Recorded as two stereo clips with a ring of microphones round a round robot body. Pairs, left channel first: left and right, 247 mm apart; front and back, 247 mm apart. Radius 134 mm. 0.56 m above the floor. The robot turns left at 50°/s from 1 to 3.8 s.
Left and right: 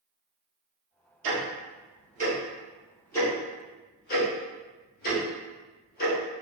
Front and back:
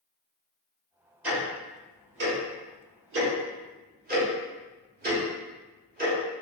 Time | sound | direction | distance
1.2 | ticking | 95° right | 1.1 m